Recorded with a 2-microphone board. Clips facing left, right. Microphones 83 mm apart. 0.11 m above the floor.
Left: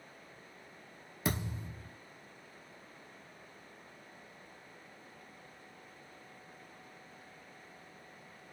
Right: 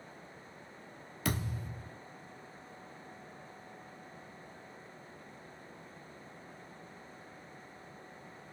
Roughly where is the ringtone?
No ringtone in this recording.